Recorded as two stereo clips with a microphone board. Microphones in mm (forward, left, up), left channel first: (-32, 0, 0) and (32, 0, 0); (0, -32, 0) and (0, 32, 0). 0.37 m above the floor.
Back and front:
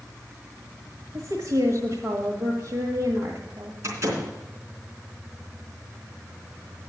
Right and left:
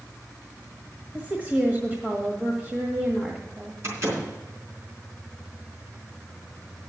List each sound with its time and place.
1.1 s a woman speaking: 25° left, 1.4 m
3.8 s a door slam: 45° left, 3.5 m